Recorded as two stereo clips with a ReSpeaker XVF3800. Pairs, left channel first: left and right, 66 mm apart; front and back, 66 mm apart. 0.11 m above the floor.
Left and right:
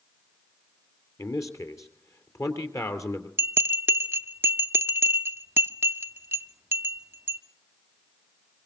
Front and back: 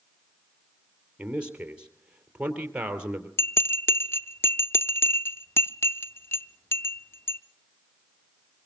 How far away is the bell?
About 0.8 m.